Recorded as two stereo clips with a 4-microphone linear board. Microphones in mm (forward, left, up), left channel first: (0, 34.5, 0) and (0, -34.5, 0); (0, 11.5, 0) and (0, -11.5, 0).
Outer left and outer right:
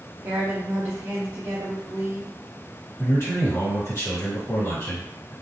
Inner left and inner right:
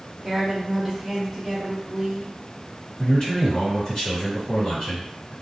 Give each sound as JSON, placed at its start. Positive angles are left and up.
{"t": 0.2, "sound": "a woman speaking", "side_deg": -35, "distance_m": 0.6}
{"t": 3.0, "sound": "a man speaking", "side_deg": 40, "distance_m": 1.6}